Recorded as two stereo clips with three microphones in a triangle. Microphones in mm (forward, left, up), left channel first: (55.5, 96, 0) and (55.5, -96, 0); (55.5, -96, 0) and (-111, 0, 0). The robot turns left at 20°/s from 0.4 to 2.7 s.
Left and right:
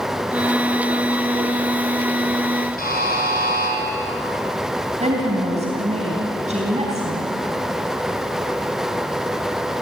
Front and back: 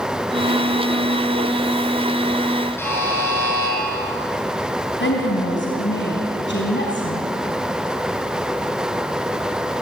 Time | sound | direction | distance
2.8 | a buzzer | 45° left | 5.5 m
5.0 | a woman speaking | 35° right | 3.5 m